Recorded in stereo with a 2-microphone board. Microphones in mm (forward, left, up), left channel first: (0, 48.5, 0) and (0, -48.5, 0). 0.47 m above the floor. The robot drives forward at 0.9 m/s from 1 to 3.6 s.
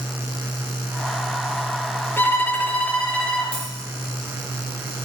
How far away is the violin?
About 1.0 m.